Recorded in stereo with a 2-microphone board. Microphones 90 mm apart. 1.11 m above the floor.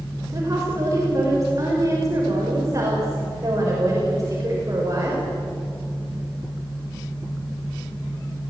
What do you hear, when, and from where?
0.3 s a woman speaking: 35° right (ahead or behind), 5.5 m